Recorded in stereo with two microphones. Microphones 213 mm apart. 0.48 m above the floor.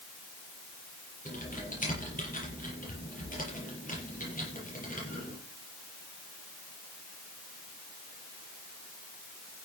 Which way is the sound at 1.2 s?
40° left (ahead or behind).